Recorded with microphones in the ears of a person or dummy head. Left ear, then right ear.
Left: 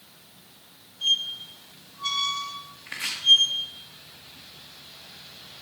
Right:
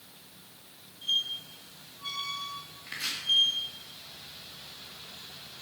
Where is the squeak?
55° left (ahead or behind), 1.1 m.